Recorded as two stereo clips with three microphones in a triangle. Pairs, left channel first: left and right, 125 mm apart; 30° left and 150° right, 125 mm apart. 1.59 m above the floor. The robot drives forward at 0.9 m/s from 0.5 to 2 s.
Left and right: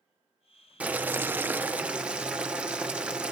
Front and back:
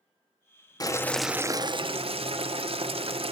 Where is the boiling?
15° right, 0.6 m; by 3.3 s 170° right, 0.8 m.